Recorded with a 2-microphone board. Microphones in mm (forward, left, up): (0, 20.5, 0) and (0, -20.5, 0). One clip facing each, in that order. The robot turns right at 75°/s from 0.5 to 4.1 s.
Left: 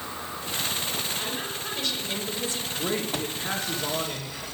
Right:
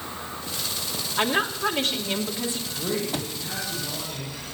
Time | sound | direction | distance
1.2 | a woman speaking | 115° right | 2.5 m
2.7 | a man speaking | 15° right | 3 m